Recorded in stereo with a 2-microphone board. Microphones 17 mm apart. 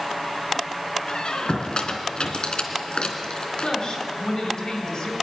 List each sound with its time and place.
1.1 s a squeak: 65° left (ahead or behind), 2 m
3.6 s a woman speaking: 50° left (ahead or behind), 5 m